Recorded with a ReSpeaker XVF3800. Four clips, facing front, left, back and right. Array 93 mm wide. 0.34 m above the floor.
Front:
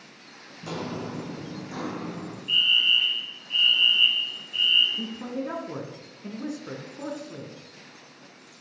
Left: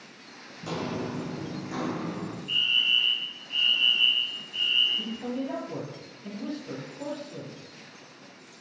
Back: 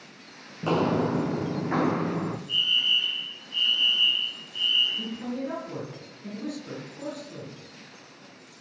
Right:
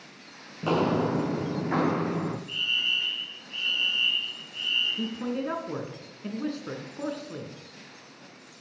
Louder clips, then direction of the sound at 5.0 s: Right 2 dB, even; 65° right.